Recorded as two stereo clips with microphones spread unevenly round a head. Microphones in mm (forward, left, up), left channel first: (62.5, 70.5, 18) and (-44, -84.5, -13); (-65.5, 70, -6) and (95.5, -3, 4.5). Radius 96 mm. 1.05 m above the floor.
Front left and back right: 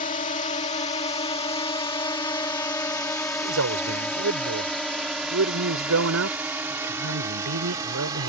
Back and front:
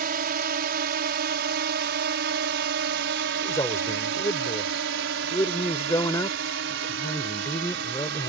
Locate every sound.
0.0 s a drone: 5° left; by 8.3 s 55° right
3.4 s a man speaking: 130° right